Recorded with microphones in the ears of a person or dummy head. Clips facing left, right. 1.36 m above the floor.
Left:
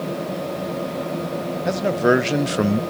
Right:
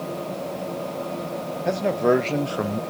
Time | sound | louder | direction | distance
1.6 | a man speaking | left 2 dB | centre (ahead or behind) | 1.2 m